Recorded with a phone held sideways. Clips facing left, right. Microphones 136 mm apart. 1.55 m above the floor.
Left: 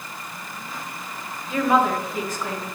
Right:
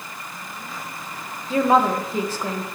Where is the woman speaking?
30° right (ahead or behind), 1.5 m.